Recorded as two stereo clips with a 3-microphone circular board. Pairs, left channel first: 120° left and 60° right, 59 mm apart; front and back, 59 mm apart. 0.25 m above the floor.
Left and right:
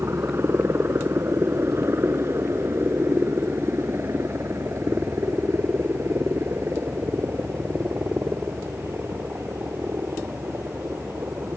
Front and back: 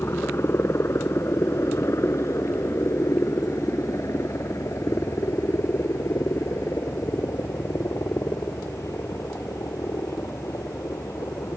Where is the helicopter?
30° right; by 11.6 s 20° right.